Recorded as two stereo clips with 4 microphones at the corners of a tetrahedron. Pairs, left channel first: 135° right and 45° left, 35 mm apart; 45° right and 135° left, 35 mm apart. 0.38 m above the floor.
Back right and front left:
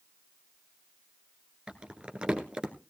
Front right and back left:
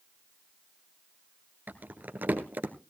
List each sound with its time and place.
1.7 s crumpling: 105° left, 1.6 m